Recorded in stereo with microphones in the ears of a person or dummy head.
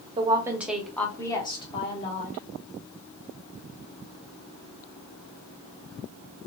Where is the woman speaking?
20° right (ahead or behind), 0.7 m; by 2.4 s 45° left (ahead or behind), 1.4 m.